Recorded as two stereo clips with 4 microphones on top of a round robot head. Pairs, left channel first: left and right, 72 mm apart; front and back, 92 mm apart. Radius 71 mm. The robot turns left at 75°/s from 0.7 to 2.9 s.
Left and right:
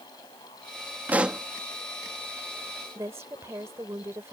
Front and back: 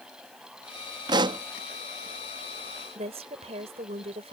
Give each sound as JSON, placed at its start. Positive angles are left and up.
{"t": 1.1, "sound": "a pop", "azimuth_deg": -155}
{"t": 3.0, "sound": "a woman speaking", "azimuth_deg": -155}